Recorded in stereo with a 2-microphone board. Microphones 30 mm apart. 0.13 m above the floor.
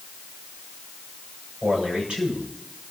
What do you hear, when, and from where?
1.6 s a man speaking: 40° right (ahead or behind), 9.5 m